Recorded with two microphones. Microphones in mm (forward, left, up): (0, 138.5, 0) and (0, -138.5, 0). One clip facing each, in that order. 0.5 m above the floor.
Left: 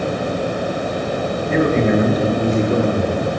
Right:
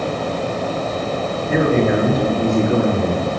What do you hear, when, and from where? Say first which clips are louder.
1.5 s a man speaking: even; 5° right (ahead or behind), 7.5 m; by 3.3 s 20° right (ahead or behind), 7.5 m